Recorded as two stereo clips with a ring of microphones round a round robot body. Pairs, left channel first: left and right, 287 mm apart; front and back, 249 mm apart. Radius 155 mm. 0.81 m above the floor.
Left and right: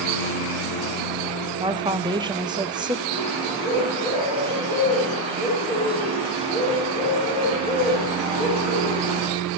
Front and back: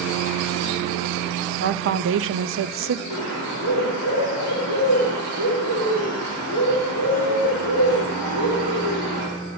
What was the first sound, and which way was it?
A woman speaking, 160° right.